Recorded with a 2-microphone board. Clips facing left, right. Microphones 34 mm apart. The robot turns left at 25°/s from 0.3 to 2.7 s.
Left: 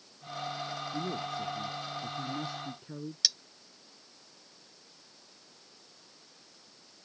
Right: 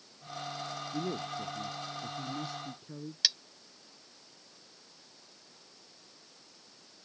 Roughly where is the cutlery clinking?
Right.